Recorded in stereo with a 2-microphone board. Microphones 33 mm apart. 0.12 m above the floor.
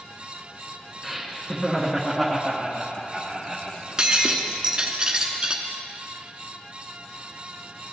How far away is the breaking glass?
About 0.9 m.